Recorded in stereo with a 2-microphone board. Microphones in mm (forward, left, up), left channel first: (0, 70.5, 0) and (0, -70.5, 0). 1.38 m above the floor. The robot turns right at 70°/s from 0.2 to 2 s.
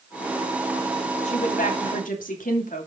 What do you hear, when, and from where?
1.2 s a woman speaking: 55° left, 2.5 m; by 2.9 s 105° left, 2.5 m